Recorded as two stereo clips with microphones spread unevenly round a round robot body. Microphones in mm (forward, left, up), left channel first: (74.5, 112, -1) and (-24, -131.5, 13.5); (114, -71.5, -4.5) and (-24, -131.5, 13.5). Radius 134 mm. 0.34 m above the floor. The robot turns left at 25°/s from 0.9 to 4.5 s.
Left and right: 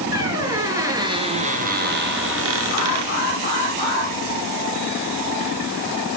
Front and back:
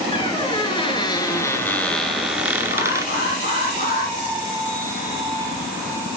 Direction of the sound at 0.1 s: 35° right.